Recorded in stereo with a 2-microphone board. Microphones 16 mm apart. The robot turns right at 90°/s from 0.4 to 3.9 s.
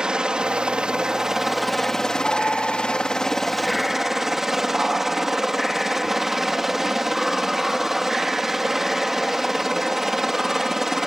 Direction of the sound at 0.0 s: 120° right.